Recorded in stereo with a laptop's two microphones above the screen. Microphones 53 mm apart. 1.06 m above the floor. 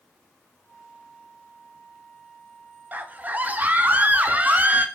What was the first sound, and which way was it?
A flute, 15° left (ahead or behind).